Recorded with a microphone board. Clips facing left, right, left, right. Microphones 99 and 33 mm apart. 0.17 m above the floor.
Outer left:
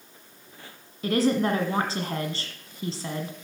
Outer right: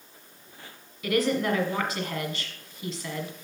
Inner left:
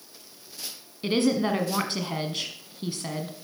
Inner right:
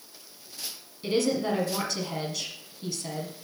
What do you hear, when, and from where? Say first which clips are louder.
1.0 s a woman speaking: outer left 2 dB, inner left 2 dB; 35° left (ahead or behind), 1.3 m